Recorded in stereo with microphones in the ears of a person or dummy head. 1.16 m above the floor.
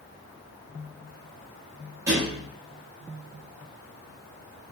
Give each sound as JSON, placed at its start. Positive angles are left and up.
{"t": 2.1, "sound": "a thud", "side_deg": -15, "distance_m": 0.6}